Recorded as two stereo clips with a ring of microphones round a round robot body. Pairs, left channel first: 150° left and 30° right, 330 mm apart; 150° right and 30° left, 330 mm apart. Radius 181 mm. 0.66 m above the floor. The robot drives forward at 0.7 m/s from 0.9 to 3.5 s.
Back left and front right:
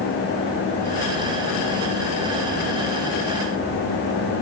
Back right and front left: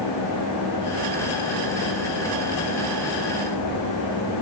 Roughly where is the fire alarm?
No fire alarm in this recording.